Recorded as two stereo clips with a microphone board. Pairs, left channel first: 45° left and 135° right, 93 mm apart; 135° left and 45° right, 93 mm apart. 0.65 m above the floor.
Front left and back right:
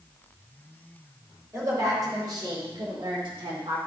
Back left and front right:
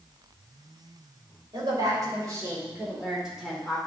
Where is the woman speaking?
80° right, 3.5 m; by 3.8 s 145° right, 2.5 m.